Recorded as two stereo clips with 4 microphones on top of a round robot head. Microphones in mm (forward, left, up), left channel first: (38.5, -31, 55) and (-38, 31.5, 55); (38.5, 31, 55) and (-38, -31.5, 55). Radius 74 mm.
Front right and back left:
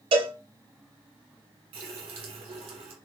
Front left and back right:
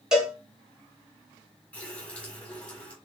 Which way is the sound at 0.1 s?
135° left.